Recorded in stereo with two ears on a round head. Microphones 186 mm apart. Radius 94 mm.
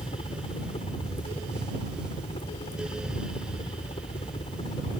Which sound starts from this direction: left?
A helicopter, at 0.0 s.